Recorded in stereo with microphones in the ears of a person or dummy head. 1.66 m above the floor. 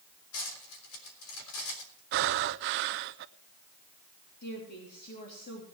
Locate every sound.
0.3 s cutlery clinking: 75° left (ahead or behind), 3.5 m
2.1 s breathing: 50° right (ahead or behind), 0.6 m
4.4 s a woman speaking: 55° left (ahead or behind), 3.5 m